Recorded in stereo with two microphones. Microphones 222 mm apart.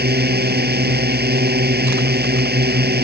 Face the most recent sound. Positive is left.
turn(degrees=-45)  # may be behind; listen again after turning